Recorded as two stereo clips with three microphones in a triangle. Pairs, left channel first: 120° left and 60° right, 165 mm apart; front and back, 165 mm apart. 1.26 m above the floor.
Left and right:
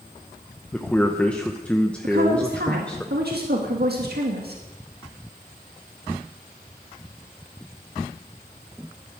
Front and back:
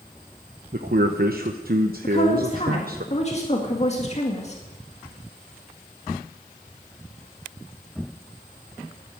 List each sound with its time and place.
0.7 s a man speaking: 160° right, 0.9 m
2.0 s a woman speaking: 50° right, 1.8 m